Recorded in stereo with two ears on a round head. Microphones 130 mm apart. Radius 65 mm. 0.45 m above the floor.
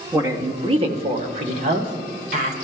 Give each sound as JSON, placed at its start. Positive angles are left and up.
{"t": 0.1, "sound": "a woman speaking", "side_deg": -20, "distance_m": 1.2}